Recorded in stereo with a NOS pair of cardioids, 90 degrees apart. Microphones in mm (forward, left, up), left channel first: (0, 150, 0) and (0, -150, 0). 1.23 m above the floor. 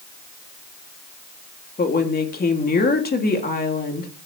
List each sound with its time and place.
1.8 s a woman speaking: 30° left, 3 m